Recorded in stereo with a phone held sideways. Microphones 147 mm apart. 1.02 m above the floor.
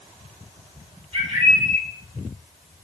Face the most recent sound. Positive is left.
turn(degrees=-45)  # may be behind; listen again after turning